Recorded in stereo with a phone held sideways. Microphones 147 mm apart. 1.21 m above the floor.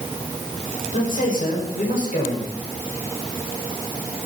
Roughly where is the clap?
I don't hear a clap.